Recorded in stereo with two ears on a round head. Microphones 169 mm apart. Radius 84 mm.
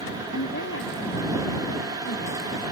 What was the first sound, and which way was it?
A woman speaking, 70° left (ahead or behind).